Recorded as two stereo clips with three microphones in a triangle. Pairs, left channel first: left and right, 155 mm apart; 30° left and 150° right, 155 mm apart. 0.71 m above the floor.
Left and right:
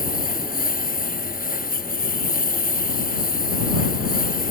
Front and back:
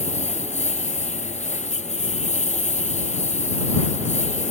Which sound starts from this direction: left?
A lawn mower, at 0.0 s.